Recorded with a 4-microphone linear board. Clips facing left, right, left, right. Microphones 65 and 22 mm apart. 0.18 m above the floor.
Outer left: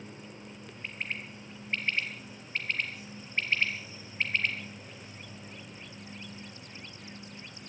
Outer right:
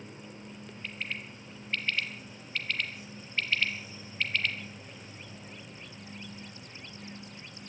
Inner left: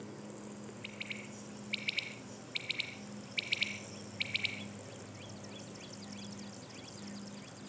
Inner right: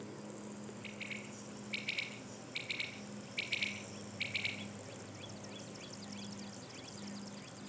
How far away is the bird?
About 2.5 m.